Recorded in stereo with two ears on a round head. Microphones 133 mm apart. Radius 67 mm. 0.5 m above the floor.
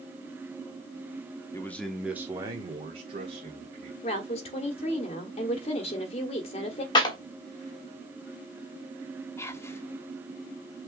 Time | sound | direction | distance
1.5 | a man speaking | 20° left (ahead or behind) | 0.9 m
4.0 | a woman speaking | 45° left (ahead or behind) | 1.5 m
7.0 | a clap | 30° left (ahead or behind) | 1.1 m
9.4 | whispering | 20° left (ahead or behind) | 0.6 m